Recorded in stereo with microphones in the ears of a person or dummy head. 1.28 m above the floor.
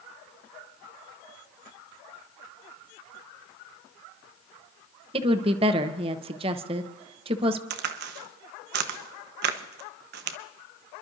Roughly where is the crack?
Right.